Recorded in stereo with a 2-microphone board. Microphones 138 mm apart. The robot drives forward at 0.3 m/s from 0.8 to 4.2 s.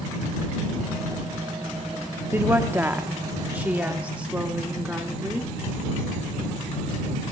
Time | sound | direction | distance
2.3 | a woman speaking | 15° right (ahead or behind) | 0.6 m